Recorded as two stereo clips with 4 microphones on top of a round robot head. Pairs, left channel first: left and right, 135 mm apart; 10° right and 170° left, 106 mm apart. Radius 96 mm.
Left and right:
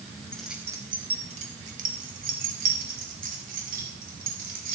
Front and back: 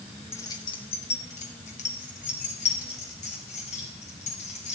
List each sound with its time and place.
0.3 s keys jangling: 15° left, 0.6 m; by 4.8 s 55° right, 3 m